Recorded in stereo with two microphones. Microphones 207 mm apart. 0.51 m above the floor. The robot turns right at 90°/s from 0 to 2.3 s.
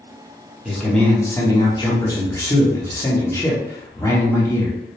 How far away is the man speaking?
About 0.6 m.